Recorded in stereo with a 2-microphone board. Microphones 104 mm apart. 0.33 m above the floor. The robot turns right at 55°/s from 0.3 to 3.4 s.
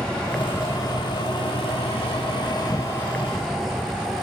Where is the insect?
10° left; by 4.2 s straight behind.